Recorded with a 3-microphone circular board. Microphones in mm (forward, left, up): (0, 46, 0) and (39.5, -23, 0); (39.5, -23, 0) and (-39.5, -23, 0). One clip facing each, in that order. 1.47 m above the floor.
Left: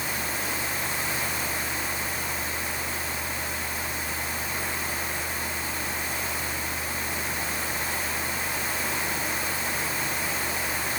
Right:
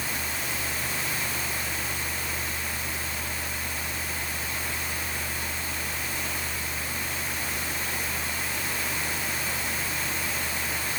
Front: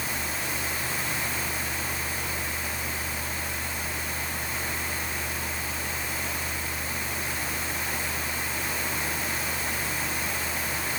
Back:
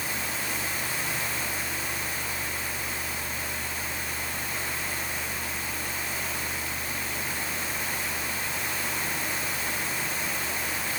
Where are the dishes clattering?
No dishes clattering in this recording.